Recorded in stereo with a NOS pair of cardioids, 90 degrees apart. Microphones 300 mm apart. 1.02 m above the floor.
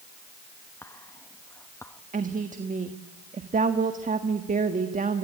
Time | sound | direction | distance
0.8 | whispering | 10° left | 0.9 m
2.1 | a woman speaking | 25° right | 1.6 m